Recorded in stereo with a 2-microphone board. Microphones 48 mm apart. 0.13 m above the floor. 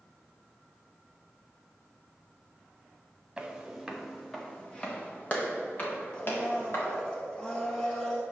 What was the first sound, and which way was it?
Footsteps, 15° right (ahead or behind).